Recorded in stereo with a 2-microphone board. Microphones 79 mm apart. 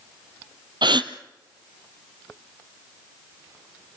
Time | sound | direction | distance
0.8 | a gasp | 70° right (ahead or behind) | 0.9 m